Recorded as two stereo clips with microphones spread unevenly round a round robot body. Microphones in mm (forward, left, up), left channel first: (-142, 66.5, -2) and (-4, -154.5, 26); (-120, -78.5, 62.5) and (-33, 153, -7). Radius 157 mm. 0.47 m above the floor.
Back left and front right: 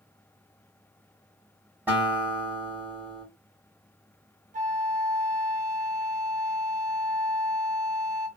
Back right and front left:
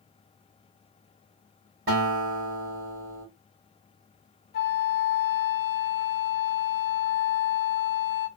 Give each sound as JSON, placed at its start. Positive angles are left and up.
{"t": 1.9, "sound": "a guitar", "azimuth_deg": 30, "distance_m": 1.7}
{"t": 4.5, "sound": "a flute", "azimuth_deg": -80, "distance_m": 0.7}